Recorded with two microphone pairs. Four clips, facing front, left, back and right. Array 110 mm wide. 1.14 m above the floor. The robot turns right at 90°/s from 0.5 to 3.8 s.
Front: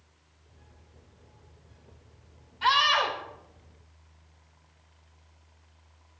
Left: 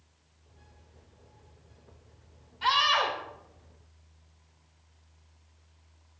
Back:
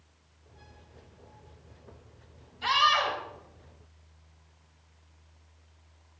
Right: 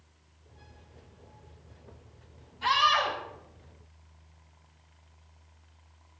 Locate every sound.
2.6 s a scream: 10° left, 4 m; by 3.2 s 60° left, 4 m